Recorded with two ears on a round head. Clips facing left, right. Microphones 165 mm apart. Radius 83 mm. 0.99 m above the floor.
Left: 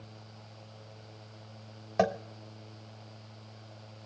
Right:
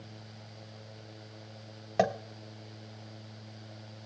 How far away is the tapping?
About 0.8 m.